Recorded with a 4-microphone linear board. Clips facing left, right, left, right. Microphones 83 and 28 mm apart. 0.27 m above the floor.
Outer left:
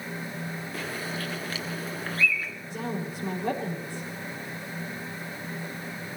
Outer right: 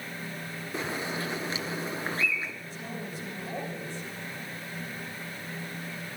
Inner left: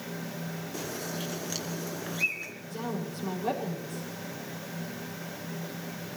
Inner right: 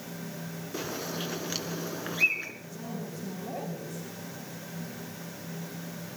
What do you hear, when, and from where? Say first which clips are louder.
0.7 s a bird: outer right 4 dB, inner right 3 dB; 25° right (ahead or behind), 1.9 m
2.7 s a woman speaking: outer left 5 dB, inner left 4 dB; 80° left, 6.5 m